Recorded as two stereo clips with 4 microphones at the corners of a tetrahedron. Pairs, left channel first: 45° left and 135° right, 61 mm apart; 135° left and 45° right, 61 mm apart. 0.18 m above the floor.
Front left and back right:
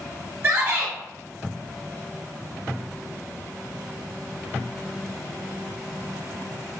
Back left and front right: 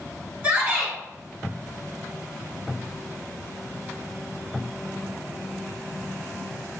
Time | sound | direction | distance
0.4 | a shout | 95° right | 1.2 m